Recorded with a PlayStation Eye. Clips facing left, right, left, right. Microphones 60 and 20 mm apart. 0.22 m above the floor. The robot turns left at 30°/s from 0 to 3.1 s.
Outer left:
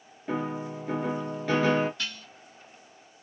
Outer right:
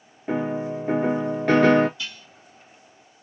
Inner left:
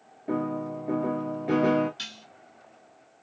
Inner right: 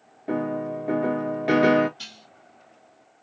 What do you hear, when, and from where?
0.3 s a piano: 20° right, 0.6 m; by 1.9 s 70° right, 0.6 m
2.0 s dishes clattering: 60° left (ahead or behind), 1.7 m; by 2.3 s 65° left (ahead or behind), 1.7 m